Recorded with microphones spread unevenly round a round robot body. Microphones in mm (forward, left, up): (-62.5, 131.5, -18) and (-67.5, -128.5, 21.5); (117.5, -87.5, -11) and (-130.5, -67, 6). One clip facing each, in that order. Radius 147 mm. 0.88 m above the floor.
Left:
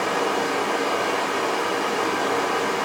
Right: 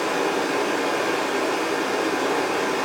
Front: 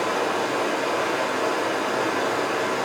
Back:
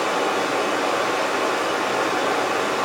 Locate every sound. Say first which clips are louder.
0.0 s running water: right 1 dB, back 2 dB; 175° right, 2.5 m